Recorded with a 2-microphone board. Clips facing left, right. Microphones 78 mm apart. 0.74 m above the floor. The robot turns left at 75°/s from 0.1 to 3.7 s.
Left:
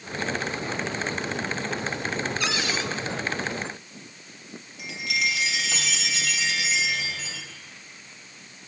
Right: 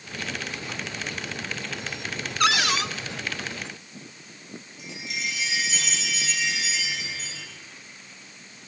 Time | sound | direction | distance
2.4 | a cupboard door | 65° right | 0.6 m
4.8 | a chime | 80° left | 2.5 m